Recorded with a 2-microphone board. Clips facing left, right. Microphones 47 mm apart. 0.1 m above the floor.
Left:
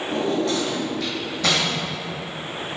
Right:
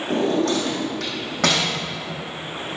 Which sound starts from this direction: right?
A drawer, at 0.1 s.